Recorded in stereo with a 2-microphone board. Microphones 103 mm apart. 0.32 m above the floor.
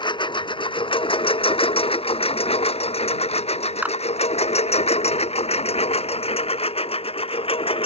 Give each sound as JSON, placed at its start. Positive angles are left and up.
{"t": 0.0, "sound": "a lawn mower", "side_deg": 50}
{"t": 3.8, "sound": "a clap", "side_deg": -15}